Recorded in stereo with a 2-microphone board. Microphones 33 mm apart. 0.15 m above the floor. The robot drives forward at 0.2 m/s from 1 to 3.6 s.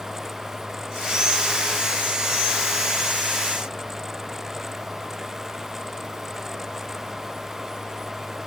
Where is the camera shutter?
I don't hear a camera shutter.